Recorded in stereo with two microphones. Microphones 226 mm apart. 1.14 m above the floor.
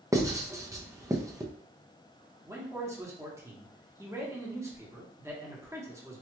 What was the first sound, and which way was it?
Writing, 15° right (ahead or behind).